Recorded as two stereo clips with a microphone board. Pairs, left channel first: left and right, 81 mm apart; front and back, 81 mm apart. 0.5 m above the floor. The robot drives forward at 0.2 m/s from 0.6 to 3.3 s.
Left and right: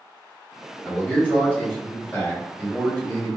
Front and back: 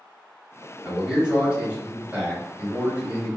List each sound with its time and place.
0.8 s a man speaking: 115° left, 1.2 m; by 3.3 s 150° left, 1.4 m